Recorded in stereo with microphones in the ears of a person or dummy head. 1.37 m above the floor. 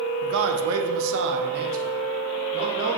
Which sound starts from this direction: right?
A man speaking, at 0.2 s.